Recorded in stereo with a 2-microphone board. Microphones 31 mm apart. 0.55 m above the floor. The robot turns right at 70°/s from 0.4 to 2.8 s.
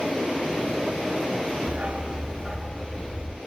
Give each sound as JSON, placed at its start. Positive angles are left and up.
{"t": 1.7, "sound": "a dog barking", "azimuth_deg": -55, "distance_m": 0.9}